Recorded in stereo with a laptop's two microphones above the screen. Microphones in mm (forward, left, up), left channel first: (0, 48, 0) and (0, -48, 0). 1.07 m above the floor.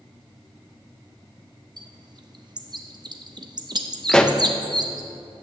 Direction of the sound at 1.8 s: 50° right (ahead or behind).